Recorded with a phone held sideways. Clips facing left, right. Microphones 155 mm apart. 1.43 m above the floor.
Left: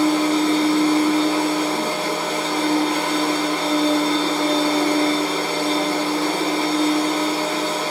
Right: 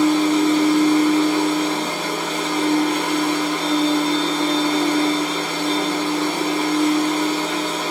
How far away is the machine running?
About 1.4 m.